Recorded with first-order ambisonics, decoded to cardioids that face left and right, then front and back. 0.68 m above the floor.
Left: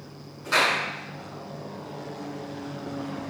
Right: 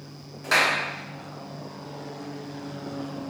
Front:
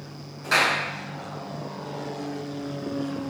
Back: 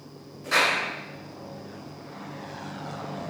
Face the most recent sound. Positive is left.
turn(degrees=-65)